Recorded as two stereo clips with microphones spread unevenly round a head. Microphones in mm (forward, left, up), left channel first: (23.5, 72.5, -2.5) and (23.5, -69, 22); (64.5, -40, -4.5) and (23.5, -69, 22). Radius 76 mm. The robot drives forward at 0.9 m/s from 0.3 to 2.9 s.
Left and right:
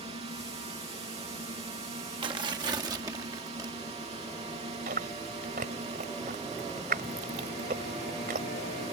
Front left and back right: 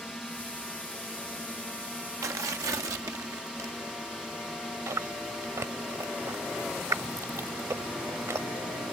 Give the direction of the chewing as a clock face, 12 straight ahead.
4 o'clock.